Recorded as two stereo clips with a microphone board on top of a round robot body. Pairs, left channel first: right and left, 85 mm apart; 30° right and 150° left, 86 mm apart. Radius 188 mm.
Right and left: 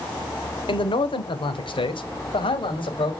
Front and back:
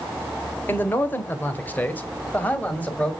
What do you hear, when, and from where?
0.7 s a man speaking: 95° right, 1.8 m; by 3.1 s 105° right, 3 m